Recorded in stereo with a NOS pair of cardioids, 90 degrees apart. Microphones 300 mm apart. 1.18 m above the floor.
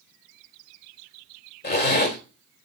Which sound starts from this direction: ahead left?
A zipper, at 1.6 s.